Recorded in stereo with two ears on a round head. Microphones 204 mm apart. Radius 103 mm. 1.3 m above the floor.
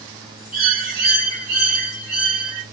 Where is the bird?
40° right (ahead or behind), 1.5 m.